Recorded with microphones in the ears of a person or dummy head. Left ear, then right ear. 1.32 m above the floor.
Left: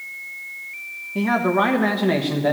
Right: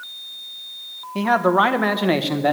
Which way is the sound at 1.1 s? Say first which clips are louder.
Right 3 dB; 40° right (ahead or behind).